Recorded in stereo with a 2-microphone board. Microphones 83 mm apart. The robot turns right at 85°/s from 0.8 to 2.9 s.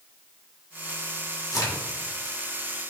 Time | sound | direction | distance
1.5 | a crack | 45° left (ahead or behind) | 1.6 m